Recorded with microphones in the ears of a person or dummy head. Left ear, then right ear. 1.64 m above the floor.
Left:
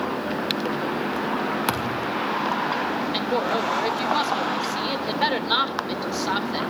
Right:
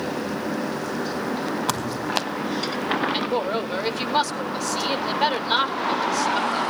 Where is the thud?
40° left (ahead or behind), 1.7 m.